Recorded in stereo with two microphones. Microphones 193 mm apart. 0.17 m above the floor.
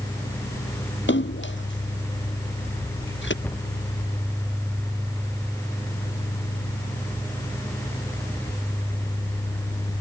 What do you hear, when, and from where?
1.1 s a splash: 80° left
3.4 s a cupboard door: 10° left (ahead or behind)